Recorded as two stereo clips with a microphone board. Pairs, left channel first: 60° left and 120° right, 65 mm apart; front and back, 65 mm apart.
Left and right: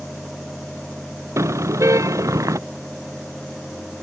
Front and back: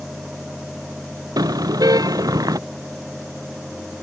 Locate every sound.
1.4 s a car horn: 160° right; by 2.6 s 155° right